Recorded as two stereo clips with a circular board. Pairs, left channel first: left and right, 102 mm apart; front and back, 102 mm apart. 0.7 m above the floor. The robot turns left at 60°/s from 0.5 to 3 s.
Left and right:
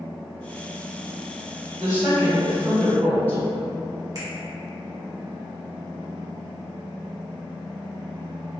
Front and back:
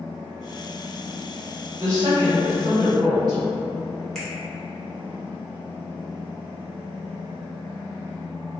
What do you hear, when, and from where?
1.8 s a woman speaking: 130° right, 1.3 m; by 3.4 s 155° left, 1.3 m
4.2 s a finger snap: 85° right, 1.0 m